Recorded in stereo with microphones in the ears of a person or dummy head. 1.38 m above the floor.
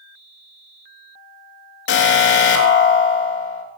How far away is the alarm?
About 3.5 m.